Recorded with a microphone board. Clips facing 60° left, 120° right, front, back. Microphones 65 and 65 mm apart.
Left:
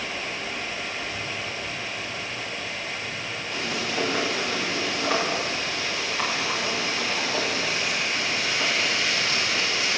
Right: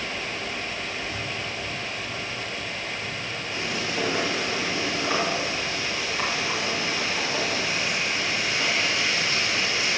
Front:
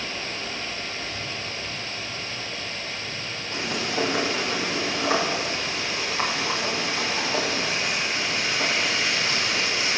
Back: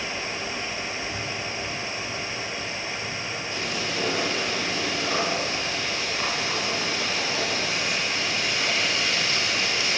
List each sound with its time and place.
1.1 s breathing: straight behind, 3 m
3.5 s frying: 30° right, 6 m